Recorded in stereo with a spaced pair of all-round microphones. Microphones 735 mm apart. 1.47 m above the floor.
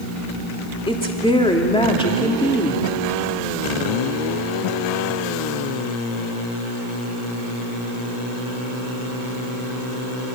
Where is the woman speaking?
5° left (ahead or behind), 3 m.